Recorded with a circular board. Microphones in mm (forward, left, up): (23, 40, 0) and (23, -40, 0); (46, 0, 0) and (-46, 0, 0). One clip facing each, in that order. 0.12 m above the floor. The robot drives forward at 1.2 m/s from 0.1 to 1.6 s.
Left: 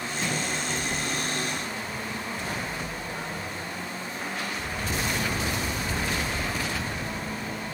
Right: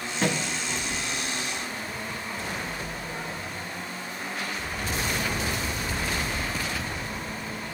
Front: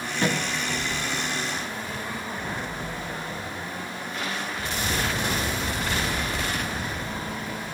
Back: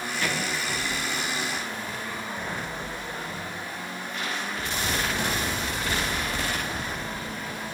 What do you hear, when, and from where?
0.2 s a thud: 55° right, 5 m; by 0.5 s 60° right, 4.5 m